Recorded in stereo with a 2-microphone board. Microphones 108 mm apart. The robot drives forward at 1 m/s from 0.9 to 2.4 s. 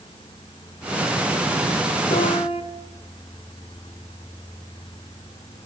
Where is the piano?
70° left (ahead or behind), 1.6 m; by 2.6 s 65° left (ahead or behind), 1.7 m.